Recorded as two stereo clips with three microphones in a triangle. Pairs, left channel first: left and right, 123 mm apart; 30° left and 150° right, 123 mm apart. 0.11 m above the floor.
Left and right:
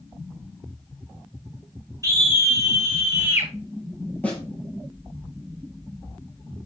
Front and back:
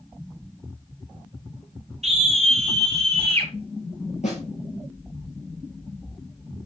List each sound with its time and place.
2.0 s a scream: 150° right, 3.5 m; by 3.5 s 160° right, 2.5 m
4.2 s a snare drum: 10° left, 4.5 m